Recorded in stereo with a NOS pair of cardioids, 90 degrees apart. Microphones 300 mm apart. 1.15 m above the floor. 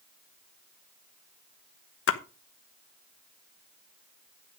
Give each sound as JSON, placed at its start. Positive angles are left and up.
{"t": 2.1, "sound": "a splash", "azimuth_deg": 50, "distance_m": 1.2}